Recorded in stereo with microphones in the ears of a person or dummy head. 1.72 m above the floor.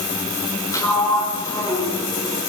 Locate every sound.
0.7 s a sliding door: 25° left (ahead or behind), 6.5 m